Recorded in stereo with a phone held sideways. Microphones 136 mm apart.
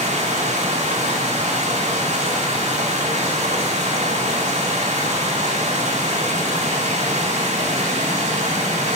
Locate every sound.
0.0 s running water: 55° right (ahead or behind), 5 m